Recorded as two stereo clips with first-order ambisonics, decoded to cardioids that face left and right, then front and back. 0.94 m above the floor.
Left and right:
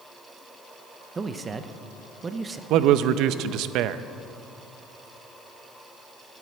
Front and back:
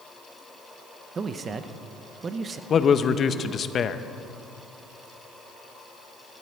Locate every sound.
1.1 s a man speaking: 140° right, 0.6 m
2.7 s a man speaking: 60° right, 0.5 m